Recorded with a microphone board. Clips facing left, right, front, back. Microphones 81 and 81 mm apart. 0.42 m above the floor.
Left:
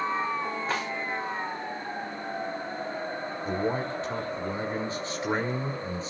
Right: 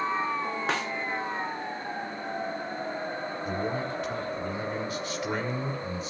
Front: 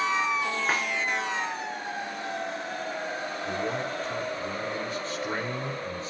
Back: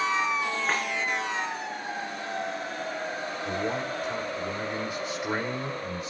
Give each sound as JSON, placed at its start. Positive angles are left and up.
{"t": 0.7, "sound": "a snare drum", "azimuth_deg": -80, "distance_m": 6.0}
{"t": 3.5, "sound": "a man speaking", "azimuth_deg": 115, "distance_m": 1.6}